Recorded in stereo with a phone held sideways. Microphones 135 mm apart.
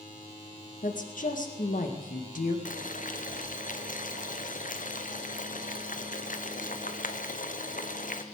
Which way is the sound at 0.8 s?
70° left (ahead or behind).